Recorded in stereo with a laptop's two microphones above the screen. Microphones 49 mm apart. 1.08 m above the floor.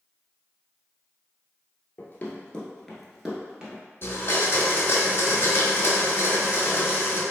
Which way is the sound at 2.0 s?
30° left (ahead or behind).